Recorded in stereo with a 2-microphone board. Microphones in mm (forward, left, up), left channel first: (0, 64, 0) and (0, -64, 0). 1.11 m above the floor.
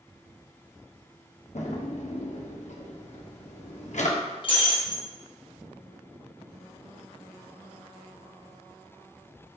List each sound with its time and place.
1.6 s a drawer: 70° left (ahead or behind), 0.6 m
4.4 s breaking glass: 45° left (ahead or behind), 0.7 m